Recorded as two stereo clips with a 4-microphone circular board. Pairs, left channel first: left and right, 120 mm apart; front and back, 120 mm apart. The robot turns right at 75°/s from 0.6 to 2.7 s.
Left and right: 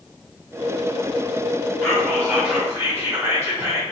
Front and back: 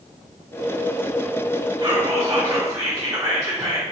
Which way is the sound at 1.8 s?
160° left.